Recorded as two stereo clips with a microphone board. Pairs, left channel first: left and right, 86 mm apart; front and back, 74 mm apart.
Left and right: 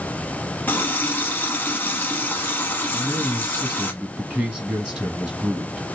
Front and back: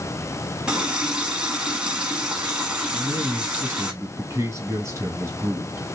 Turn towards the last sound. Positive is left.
turn(degrees=-170)